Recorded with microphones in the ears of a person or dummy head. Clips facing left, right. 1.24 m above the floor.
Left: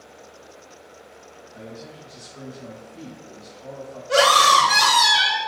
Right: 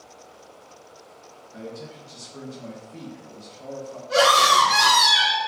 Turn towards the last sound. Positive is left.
turn(degrees=65)  # may be behind; listen again after turning